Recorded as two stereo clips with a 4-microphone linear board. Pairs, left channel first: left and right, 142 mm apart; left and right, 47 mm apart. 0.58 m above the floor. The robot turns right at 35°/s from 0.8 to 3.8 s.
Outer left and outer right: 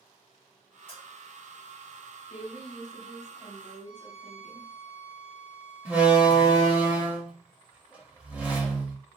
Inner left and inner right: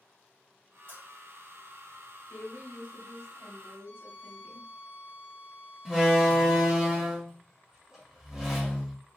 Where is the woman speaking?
80° left, 1.4 m; by 4.7 s 135° left, 1.4 m.